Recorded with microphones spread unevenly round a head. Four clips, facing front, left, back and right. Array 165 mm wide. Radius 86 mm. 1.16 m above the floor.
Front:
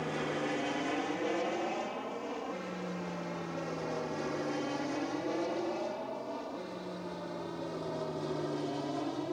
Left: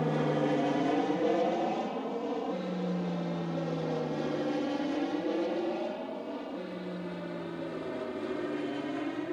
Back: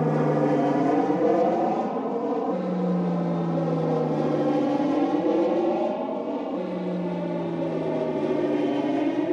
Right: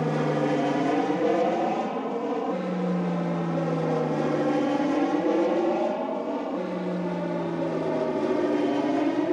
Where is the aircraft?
165° right; by 9.3 s 140° right.